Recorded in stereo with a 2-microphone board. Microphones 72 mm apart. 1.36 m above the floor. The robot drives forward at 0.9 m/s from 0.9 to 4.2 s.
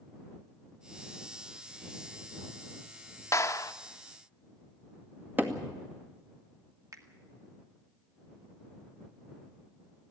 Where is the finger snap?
55° right (ahead or behind), 1.9 m.